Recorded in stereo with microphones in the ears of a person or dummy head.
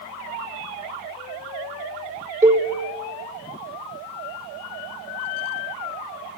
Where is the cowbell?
15° right (ahead or behind), 0.8 m.